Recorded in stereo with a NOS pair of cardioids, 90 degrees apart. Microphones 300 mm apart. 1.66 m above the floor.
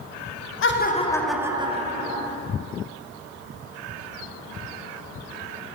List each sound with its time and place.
0.6 s laughter: 45° left, 0.9 m; by 2.3 s 35° right, 1.6 m